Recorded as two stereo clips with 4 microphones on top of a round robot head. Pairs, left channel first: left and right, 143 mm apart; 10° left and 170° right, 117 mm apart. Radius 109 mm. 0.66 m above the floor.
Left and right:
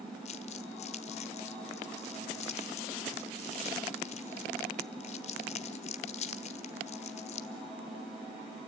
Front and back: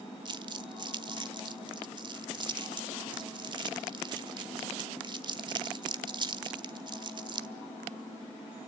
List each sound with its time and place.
0.2 s crumpling: 140° left, 1.1 m